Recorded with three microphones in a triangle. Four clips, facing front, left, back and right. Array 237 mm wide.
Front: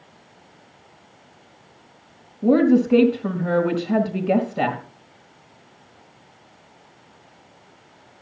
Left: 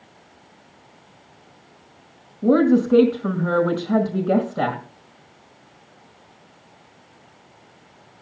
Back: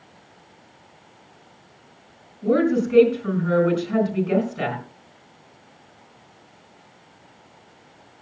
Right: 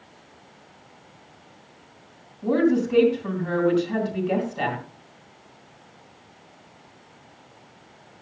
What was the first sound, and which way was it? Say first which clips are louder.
A woman speaking: left 4 dB, front 4 dB; 40° left.